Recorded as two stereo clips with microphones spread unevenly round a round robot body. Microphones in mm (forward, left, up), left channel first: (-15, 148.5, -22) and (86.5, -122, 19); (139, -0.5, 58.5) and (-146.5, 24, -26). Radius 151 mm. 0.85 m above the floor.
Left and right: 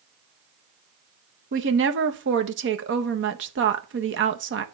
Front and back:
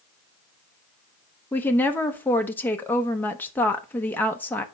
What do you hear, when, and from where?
1.5 s a woman speaking: 105° right, 1.0 m